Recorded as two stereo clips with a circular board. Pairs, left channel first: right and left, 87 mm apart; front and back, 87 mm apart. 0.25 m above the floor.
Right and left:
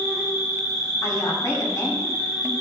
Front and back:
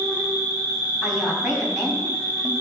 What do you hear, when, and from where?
0.0 s an insect: 135° right, 2 m
1.0 s a woman speaking: 90° right, 2.0 m